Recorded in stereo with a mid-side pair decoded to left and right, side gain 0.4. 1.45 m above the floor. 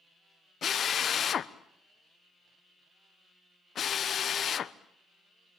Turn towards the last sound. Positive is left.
turn(degrees=55)